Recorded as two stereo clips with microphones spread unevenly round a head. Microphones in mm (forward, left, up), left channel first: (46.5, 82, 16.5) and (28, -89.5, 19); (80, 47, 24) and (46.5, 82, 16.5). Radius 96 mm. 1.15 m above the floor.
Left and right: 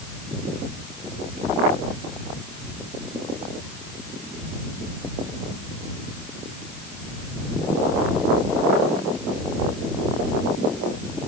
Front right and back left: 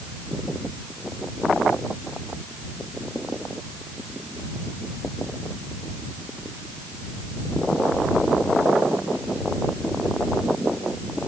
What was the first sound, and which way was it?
Only background noise.